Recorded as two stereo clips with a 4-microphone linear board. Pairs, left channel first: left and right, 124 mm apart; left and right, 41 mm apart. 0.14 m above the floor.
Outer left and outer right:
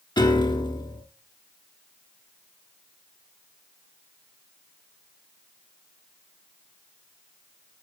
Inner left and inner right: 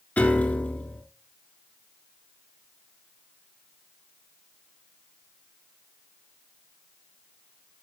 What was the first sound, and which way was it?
A piano, 40° left (ahead or behind).